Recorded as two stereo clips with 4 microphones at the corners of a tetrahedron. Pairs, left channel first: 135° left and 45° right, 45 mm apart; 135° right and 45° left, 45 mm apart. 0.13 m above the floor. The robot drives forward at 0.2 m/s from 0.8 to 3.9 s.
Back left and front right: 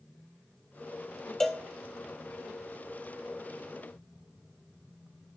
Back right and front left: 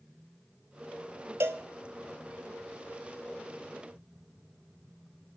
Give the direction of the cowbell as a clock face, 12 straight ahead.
10 o'clock.